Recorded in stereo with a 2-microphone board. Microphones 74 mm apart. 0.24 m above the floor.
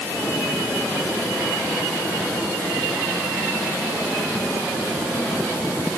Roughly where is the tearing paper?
I don't hear tearing paper.